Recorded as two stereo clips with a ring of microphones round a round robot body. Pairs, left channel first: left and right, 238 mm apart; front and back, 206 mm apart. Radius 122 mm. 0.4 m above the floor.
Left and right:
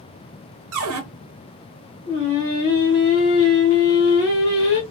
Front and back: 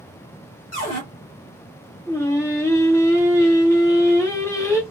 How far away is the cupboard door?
About 1.0 m.